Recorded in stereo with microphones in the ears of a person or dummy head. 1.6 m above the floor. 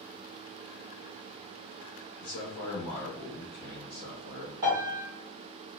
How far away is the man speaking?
About 0.9 m.